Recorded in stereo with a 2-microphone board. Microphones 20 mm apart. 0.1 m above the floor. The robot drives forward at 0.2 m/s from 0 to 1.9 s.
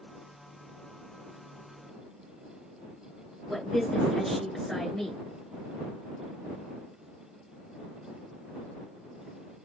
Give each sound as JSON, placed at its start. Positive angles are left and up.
{"t": 3.5, "sound": "a woman speaking", "side_deg": 15, "distance_m": 1.7}